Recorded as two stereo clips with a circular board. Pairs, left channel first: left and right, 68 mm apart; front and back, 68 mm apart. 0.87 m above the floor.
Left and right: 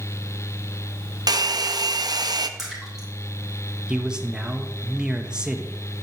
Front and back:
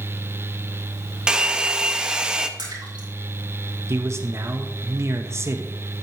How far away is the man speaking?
About 0.9 m.